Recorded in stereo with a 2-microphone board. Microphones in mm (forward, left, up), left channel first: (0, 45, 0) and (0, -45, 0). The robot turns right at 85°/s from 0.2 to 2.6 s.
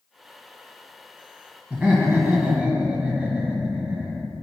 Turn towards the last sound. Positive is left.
turn(degrees=-20)  # may be behind; listen again after turning